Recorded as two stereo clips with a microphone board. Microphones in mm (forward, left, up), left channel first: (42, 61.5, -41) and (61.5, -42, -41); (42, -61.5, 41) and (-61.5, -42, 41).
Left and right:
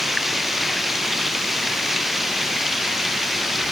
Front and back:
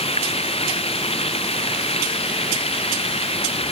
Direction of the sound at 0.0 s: 10° left.